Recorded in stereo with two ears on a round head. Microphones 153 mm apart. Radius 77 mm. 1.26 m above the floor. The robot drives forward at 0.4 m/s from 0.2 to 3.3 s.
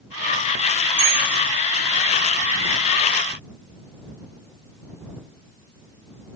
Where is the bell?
40° right (ahead or behind), 1.5 m.